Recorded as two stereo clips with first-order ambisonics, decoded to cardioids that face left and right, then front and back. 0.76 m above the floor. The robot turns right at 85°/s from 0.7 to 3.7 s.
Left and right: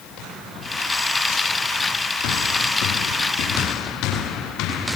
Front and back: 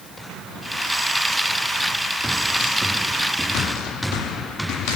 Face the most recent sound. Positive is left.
No sound to turn to.